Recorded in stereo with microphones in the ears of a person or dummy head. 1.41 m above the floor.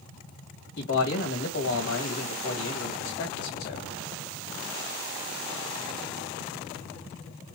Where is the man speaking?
65° left (ahead or behind), 2 m.